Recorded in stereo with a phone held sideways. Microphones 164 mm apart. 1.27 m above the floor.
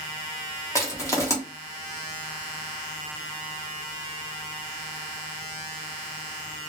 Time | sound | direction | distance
0.8 | crushing | 20° left (ahead or behind) | 0.8 m